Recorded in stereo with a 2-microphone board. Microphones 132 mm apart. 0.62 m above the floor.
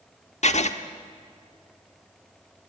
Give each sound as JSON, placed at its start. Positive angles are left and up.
{"t": 0.4, "sound": "writing", "side_deg": 60, "distance_m": 1.4}